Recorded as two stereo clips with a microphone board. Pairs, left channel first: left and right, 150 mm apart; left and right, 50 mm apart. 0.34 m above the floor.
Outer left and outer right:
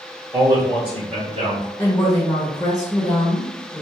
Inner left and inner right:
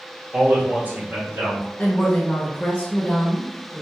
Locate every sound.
0.3 s a man speaking: 20° right (ahead or behind), 1.2 m; by 1.7 s 55° right (ahead or behind), 2 m
1.8 s a woman speaking: 20° left (ahead or behind), 0.9 m